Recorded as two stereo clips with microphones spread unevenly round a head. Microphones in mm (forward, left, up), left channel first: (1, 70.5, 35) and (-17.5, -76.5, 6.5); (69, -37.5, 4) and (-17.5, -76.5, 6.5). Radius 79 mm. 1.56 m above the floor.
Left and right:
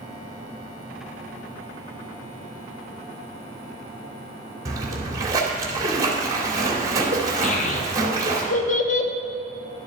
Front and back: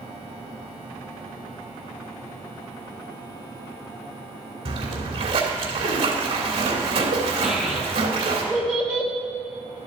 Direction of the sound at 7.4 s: 110° left.